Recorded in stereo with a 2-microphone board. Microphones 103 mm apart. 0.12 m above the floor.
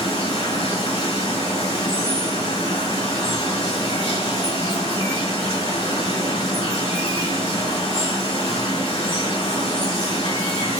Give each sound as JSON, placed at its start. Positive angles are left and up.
{"t": 0.0, "sound": "running water", "side_deg": 75, "distance_m": 3.5}